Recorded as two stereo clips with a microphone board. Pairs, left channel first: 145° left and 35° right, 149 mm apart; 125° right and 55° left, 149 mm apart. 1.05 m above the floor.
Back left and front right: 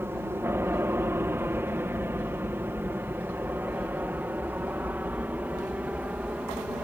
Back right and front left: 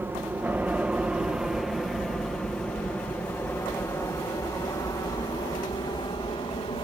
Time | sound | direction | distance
0.0 | an aircraft | 10° left | ?